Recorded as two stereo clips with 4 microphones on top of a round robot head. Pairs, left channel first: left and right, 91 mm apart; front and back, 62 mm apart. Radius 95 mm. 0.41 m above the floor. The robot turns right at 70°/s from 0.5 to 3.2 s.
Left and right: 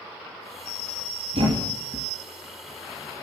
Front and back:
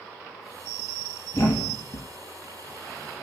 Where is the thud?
50° right, 1.6 m; by 2.1 s straight ahead, 1.6 m.